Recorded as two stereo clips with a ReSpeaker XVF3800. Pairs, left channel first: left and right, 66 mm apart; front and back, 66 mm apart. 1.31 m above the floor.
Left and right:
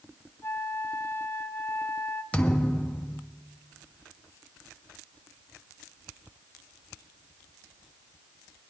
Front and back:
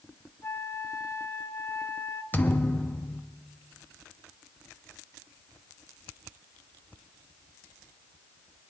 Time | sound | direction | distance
0.4 | a flute | 40° left | 0.9 m
2.3 | a thud | 35° left | 0.7 m